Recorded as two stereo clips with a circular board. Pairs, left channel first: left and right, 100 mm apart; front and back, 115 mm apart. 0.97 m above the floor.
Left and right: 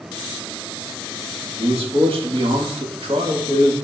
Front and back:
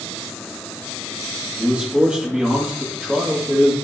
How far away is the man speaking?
About 1.7 m.